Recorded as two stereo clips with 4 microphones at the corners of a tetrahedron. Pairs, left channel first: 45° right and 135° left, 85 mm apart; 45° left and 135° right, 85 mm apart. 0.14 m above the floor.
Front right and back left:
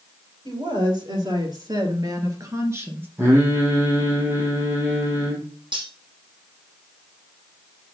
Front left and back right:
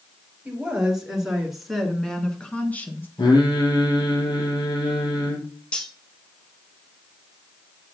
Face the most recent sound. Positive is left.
turn(degrees=125)